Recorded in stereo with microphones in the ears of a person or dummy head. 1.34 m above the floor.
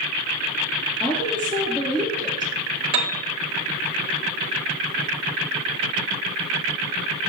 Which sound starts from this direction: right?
A piano, at 2.9 s.